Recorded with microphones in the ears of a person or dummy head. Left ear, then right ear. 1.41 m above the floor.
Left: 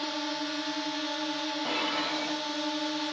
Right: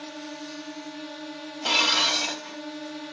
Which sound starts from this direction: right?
Dishes clattering, at 1.6 s.